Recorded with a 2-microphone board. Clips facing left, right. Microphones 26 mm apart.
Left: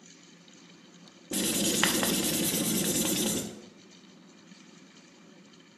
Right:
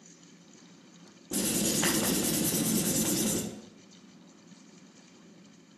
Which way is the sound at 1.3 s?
45° left (ahead or behind).